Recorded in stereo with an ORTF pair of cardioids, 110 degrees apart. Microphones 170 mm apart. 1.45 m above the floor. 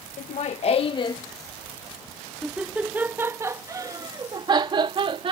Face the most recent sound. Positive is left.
turn(degrees=-35)